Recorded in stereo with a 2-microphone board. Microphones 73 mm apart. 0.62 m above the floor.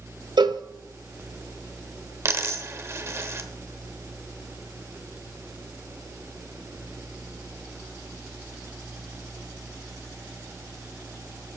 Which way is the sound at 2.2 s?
40° right (ahead or behind).